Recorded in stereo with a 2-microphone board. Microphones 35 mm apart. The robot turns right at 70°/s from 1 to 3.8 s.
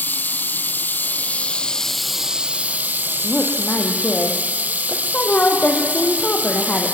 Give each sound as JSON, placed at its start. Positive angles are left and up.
{"t": 0.0, "sound": "running water", "azimuth_deg": 105, "distance_m": 0.7}
{"t": 3.2, "sound": "a woman speaking", "azimuth_deg": 5, "distance_m": 4.0}